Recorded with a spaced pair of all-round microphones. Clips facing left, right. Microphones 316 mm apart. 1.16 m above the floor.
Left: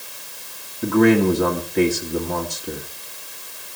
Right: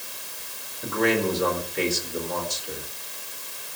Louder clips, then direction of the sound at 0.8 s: Left 9 dB; 65° left (ahead or behind).